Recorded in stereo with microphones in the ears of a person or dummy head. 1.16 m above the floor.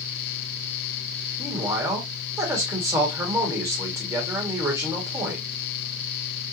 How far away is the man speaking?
About 2 m.